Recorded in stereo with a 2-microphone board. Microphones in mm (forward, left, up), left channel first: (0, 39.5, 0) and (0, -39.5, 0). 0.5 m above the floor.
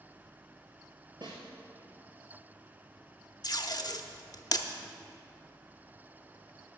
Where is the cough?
I don't hear a cough.